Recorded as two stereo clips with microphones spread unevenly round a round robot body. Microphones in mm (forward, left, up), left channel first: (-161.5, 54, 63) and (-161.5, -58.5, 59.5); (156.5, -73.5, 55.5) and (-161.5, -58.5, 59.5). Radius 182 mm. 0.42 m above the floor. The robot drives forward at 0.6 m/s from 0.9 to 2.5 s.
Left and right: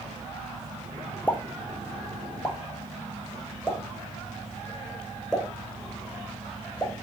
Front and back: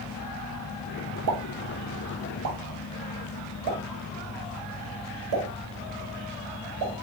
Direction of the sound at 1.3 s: 170° left.